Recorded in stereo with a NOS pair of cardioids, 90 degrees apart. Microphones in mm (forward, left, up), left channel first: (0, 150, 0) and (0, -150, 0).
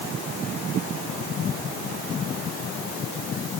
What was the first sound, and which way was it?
Only background noise.